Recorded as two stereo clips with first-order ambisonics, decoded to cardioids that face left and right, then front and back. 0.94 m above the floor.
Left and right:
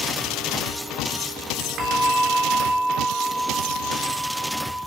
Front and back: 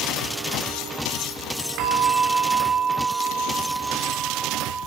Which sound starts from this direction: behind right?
A bell, at 1.8 s.